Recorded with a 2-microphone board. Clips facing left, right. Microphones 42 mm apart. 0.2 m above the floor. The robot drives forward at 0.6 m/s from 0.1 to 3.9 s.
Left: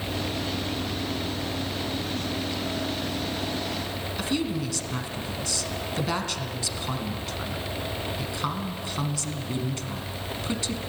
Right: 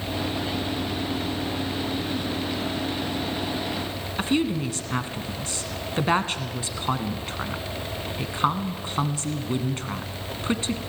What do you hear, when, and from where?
4.2 s a woman speaking: 30° right (ahead or behind), 1.9 m